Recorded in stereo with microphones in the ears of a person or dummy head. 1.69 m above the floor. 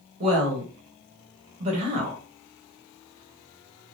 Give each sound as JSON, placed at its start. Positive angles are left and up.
{"t": 0.2, "sound": "a woman speaking", "side_deg": -40, "distance_m": 1.2}